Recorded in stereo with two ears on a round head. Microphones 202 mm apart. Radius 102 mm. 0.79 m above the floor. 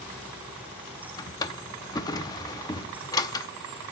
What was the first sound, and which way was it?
A drawer, 15° left (ahead or behind).